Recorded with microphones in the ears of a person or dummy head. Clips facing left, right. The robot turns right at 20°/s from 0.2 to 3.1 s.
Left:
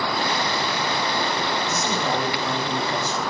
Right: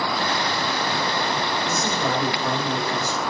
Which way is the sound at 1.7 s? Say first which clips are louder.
Even; 40° right (ahead or behind).